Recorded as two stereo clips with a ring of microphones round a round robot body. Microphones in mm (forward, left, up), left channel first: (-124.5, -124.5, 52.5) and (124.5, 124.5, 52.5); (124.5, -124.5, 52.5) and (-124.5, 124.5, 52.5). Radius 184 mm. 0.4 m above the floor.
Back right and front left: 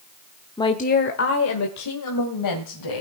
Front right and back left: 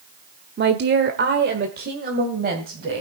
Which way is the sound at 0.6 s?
155° left.